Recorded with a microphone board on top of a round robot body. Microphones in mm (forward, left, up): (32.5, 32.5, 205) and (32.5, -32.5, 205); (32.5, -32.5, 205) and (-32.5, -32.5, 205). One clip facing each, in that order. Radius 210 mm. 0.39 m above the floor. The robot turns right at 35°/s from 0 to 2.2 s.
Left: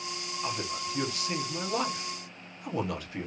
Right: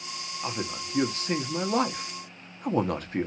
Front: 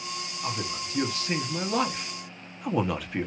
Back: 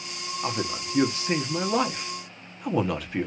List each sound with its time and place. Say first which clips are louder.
0.4 s a man speaking: right 1 dB, back 4 dB; 150° right, 1.2 m; by 3.3 s 90° right, 1.2 m